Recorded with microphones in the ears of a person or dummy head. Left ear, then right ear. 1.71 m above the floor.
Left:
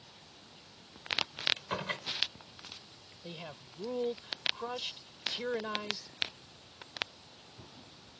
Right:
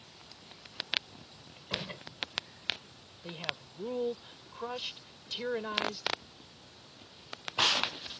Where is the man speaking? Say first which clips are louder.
Right 8 dB; 5° left (ahead or behind).